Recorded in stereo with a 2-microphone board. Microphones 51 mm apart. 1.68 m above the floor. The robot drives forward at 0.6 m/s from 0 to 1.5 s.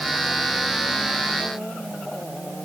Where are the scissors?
I don't hear scissors.